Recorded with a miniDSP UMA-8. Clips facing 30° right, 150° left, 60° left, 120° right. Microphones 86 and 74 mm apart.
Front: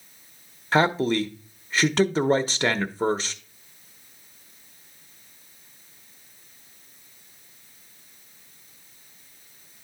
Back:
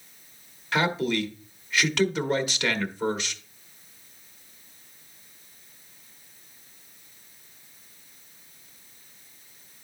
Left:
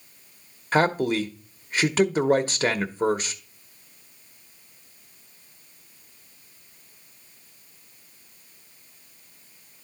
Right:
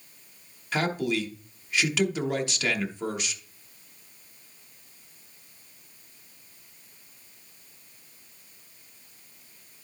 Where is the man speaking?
20° left, 1.0 m.